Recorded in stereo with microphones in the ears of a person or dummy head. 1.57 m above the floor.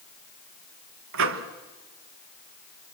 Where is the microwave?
75° right (ahead or behind), 1.4 m.